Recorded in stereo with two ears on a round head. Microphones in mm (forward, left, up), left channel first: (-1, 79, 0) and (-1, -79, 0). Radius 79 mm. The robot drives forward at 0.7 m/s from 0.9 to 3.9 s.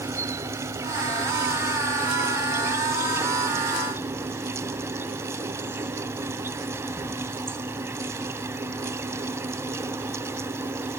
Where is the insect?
20° right (ahead or behind); by 11.0 s 15° right (ahead or behind).